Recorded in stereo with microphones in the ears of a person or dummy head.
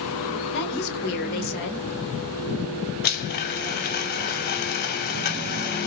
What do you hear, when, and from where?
0.5 s a woman speaking: 50° left (ahead or behind), 1.5 m
3.0 s a blender: 55° left (ahead or behind), 0.5 m